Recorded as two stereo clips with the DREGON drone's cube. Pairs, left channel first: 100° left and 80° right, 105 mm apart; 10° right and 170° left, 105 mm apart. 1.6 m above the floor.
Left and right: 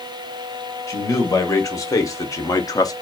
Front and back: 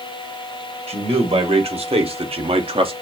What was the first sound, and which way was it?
A man speaking, 160° left.